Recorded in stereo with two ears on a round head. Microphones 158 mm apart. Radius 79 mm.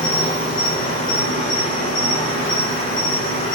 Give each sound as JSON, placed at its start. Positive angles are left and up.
{"t": 0.0, "sound": "an insect", "side_deg": 30, "distance_m": 4.5}